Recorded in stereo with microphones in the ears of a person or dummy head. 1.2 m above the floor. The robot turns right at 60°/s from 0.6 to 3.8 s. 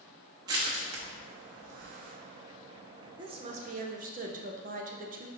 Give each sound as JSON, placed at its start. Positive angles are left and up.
{"t": 0.5, "sound": "crushing", "side_deg": -20, "distance_m": 0.8}
{"t": 3.2, "sound": "a woman speaking", "azimuth_deg": -155, "distance_m": 0.5}